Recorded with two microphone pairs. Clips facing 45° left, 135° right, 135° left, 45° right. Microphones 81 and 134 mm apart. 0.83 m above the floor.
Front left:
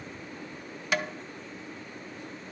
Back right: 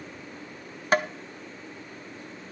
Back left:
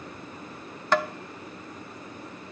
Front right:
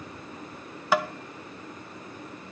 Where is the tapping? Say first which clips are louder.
Back right 6 dB, even; 120° right, 0.5 m.